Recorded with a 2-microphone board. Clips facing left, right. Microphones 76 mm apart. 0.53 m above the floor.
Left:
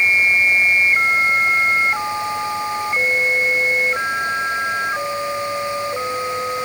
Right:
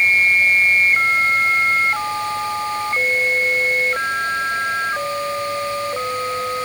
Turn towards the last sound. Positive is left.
No sound to turn to.